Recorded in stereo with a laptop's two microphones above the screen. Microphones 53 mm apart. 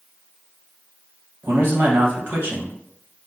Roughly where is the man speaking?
Right.